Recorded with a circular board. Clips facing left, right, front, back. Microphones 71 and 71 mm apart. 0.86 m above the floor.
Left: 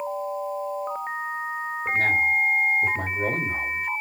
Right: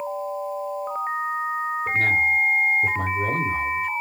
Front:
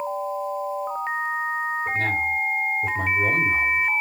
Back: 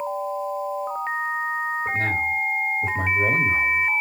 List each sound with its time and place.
1.9 s a man speaking: 125° left, 1.8 m